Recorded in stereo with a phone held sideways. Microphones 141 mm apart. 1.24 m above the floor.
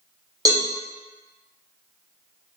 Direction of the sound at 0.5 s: 25° right (ahead or behind).